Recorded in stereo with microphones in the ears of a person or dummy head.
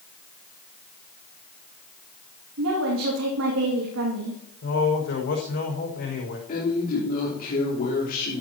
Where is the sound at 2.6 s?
80° right, 2.5 m.